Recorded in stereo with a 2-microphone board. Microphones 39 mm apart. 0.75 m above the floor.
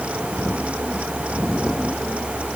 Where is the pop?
No pop in this recording.